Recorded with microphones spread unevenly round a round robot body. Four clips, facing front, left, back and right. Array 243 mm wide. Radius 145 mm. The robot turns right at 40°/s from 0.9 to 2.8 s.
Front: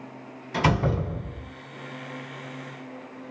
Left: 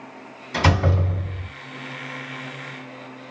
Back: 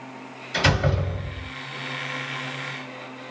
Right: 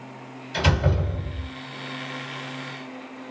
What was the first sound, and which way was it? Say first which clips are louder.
A door slam: left 3 dB, back 1 dB; 65° left.